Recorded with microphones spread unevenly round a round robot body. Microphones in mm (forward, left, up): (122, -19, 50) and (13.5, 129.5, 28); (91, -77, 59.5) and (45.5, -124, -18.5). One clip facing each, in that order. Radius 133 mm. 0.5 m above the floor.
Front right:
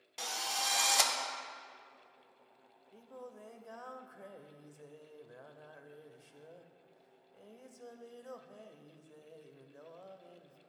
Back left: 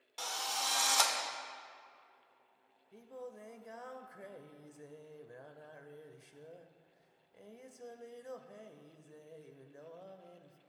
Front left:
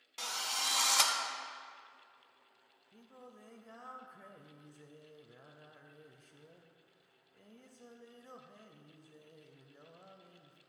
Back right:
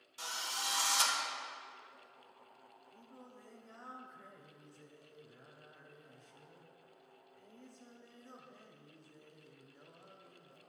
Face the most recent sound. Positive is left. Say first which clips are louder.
# back left 2 dB, front left 2 dB
turn(degrees=50)